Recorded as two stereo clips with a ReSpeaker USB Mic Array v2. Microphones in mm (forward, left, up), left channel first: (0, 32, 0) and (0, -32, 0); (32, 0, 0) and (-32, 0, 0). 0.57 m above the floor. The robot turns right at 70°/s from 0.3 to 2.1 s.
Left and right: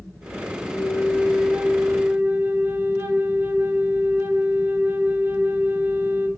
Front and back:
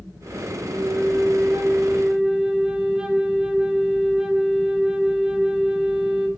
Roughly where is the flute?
Behind left.